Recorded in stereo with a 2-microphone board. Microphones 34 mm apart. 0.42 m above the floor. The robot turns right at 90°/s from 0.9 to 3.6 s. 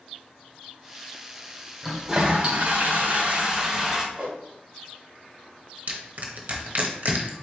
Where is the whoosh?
45° right (ahead or behind), 2 m.